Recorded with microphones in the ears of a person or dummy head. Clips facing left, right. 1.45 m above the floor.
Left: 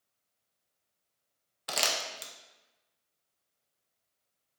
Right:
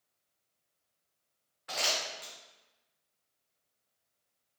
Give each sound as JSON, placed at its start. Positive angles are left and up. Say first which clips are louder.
{"t": 1.7, "sound": "crumpling", "louder": "left 1 dB", "side_deg": 50, "distance_m": 0.5}